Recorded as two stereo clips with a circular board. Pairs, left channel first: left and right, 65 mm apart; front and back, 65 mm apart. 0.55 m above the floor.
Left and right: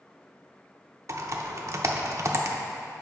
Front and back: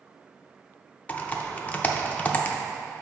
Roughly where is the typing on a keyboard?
Ahead right.